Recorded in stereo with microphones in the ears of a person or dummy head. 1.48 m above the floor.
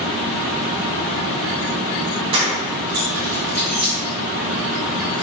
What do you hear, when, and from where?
2.3 s keys jangling: 30° right (ahead or behind), 0.7 m; by 3.9 s 5° left (ahead or behind), 0.7 m